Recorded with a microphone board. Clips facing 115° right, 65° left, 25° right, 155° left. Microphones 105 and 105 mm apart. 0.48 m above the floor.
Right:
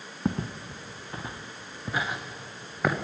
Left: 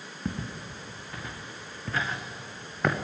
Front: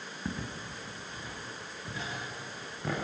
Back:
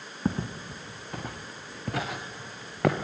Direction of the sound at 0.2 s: 155° right.